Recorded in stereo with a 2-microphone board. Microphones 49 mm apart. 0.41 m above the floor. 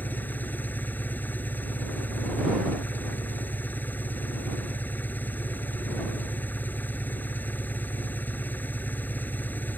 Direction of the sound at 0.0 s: 40° left (ahead or behind).